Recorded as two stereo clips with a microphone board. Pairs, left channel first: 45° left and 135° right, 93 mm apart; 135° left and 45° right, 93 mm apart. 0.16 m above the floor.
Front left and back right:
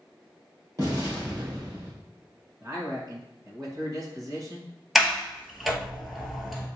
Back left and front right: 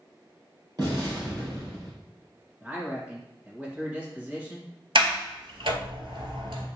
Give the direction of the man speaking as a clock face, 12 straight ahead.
4 o'clock.